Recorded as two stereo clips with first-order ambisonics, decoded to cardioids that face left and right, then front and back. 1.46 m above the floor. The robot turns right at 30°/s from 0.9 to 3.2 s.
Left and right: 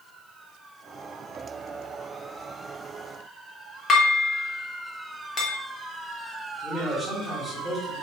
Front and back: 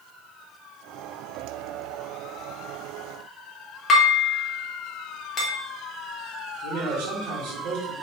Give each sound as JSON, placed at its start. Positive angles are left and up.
{"t": 3.9, "sound": "dishes clattering", "azimuth_deg": 45, "distance_m": 0.7}
{"t": 6.6, "sound": "a man speaking", "azimuth_deg": 175, "distance_m": 1.0}